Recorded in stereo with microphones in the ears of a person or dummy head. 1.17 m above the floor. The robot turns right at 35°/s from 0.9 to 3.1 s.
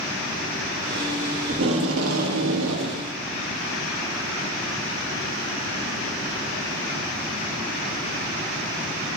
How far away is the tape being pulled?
About 1.6 m.